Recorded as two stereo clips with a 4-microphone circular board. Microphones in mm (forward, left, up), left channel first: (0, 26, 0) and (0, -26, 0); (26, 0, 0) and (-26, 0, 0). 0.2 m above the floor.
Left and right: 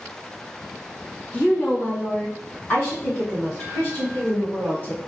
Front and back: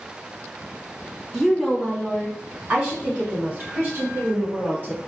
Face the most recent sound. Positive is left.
turn(degrees=135)